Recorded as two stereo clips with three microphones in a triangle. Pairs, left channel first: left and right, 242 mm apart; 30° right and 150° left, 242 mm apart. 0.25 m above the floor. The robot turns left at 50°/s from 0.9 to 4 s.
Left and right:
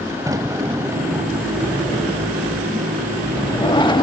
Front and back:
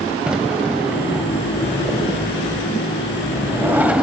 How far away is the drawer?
About 0.5 m.